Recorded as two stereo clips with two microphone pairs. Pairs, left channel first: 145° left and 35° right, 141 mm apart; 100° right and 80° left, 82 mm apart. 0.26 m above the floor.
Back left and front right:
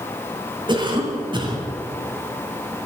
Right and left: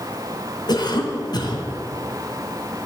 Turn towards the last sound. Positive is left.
turn(degrees=-85)